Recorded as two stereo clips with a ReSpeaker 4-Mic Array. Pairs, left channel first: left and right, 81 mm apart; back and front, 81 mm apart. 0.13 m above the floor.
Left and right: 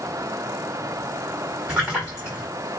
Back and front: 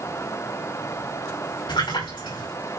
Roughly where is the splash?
Behind.